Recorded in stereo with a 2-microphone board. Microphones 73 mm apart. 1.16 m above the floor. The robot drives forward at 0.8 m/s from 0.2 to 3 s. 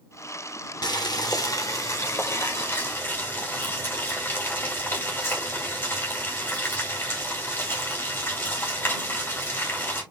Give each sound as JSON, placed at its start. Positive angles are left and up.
{"t": 0.8, "sound": "boiling", "side_deg": 65, "distance_m": 1.3}